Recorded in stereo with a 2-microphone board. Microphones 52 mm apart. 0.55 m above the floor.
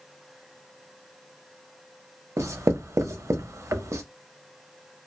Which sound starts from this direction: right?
Writing, at 2.4 s.